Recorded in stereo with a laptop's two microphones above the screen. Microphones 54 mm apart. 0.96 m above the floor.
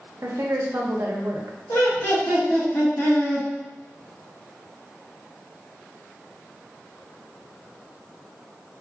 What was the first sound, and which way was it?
A woman speaking, 55° right (ahead or behind).